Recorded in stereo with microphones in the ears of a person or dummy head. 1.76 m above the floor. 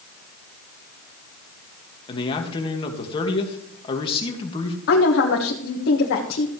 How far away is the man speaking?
About 2.0 m.